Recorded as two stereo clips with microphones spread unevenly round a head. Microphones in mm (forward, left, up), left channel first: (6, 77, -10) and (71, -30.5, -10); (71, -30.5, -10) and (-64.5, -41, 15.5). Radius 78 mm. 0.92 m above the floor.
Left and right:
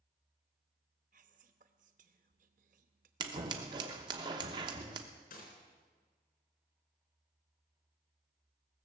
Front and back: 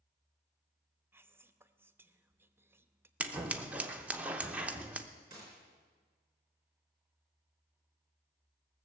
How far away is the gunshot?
About 4 m.